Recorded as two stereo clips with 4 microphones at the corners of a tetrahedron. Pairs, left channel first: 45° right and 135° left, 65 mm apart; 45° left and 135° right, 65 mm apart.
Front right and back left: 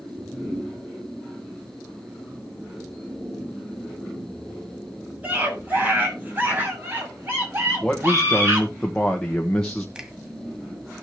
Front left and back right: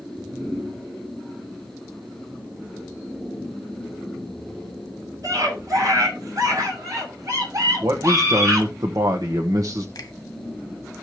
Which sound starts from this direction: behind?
A scream, at 5.2 s.